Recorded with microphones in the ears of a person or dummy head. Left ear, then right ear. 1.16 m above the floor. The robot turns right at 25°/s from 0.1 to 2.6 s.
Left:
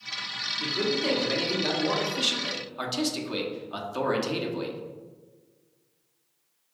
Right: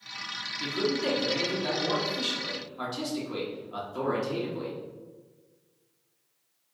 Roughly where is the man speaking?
Ahead.